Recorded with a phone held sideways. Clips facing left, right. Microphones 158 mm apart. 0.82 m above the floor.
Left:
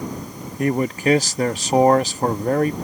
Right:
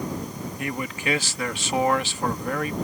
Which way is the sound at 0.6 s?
40° left (ahead or behind).